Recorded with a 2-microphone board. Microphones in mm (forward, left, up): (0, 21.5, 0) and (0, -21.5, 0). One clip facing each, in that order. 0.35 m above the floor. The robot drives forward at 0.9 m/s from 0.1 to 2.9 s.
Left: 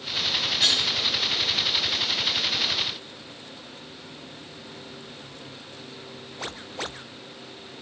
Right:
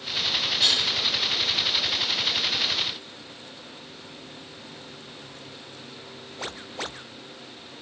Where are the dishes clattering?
60° left (ahead or behind), 3.5 m; by 0.9 s 65° left (ahead or behind), 3.5 m.